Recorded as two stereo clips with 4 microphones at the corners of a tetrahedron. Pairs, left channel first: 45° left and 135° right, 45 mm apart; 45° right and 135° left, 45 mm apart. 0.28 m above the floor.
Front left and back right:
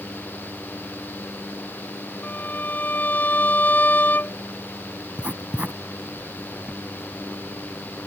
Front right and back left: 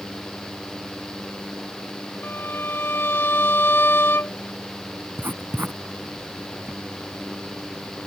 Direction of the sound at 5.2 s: 165° left.